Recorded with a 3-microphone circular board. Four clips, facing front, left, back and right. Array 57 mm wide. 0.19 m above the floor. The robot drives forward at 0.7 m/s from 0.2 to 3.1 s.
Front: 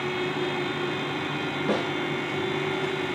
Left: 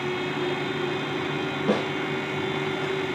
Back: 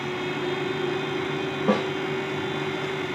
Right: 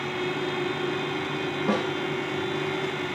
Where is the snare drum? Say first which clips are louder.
Left 2 dB, back 4 dB; straight behind, 5.5 m.